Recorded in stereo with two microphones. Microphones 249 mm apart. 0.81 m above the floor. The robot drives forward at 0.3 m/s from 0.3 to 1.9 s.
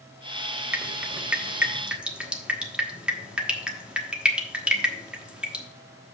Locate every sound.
0.7 s dripping: 5° right (ahead or behind), 0.8 m